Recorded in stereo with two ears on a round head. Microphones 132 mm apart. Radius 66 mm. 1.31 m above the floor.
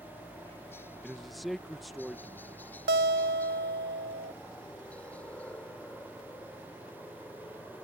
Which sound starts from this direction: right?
A guitar, at 2.9 s.